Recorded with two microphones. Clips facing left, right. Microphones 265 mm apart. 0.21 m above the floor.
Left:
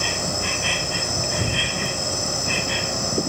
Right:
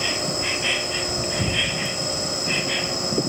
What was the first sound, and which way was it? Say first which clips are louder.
An insect: right 1 dB; 50° left (ahead or behind).